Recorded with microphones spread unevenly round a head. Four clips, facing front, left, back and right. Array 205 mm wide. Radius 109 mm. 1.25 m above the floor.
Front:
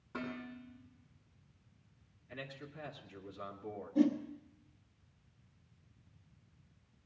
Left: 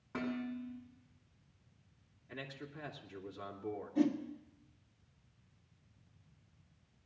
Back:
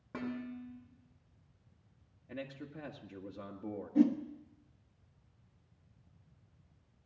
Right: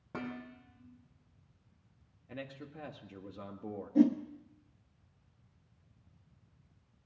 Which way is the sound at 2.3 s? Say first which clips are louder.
Right 2 dB, back 4 dB; 145° right.